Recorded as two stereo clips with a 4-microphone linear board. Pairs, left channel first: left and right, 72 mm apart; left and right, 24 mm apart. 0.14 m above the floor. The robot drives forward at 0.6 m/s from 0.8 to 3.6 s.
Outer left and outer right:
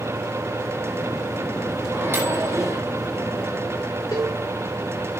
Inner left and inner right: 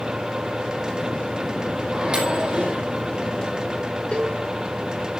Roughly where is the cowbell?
Left.